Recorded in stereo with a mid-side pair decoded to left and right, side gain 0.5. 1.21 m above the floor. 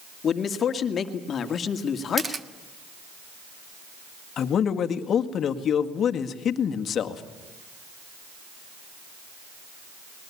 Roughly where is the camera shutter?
Ahead right.